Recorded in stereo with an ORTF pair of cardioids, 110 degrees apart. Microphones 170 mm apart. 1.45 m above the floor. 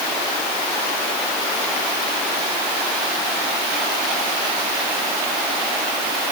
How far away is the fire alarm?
I don't hear a fire alarm.